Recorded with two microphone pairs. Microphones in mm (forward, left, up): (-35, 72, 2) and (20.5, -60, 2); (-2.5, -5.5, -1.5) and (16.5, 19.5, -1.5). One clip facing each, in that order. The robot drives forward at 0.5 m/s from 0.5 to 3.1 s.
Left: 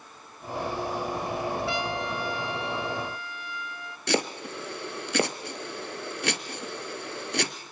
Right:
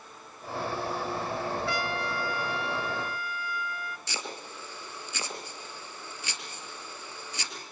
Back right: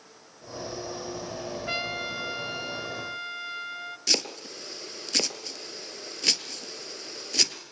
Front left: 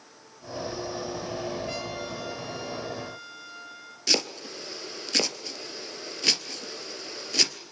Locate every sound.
1.7 s a trumpet: straight behind, 0.5 m
4.1 s chopping: 135° left, 2 m